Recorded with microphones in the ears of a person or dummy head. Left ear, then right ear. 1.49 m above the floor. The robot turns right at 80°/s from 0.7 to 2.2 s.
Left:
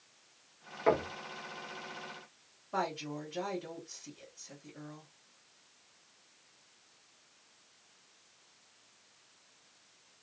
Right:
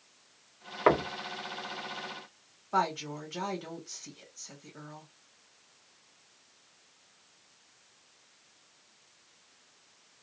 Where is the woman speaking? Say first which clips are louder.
Right 6 dB; 60° right (ahead or behind), 1.4 m.